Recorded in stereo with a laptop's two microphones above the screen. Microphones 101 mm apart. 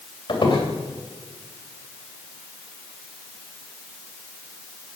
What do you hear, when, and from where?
0.3 s a squeak: 55° left (ahead or behind), 3 m